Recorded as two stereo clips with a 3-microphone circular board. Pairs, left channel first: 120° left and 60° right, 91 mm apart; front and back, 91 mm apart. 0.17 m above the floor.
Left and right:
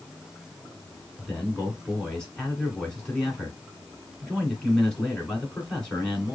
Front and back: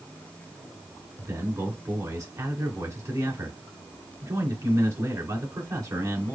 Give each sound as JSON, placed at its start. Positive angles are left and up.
{"t": 1.2, "sound": "a man speaking", "azimuth_deg": -160, "distance_m": 2.0}